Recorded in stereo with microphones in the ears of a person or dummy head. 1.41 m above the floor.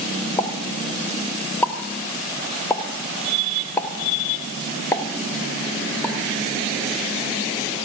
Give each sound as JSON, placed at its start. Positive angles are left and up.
{"t": 0.4, "sound": "a pop", "side_deg": 10, "distance_m": 0.8}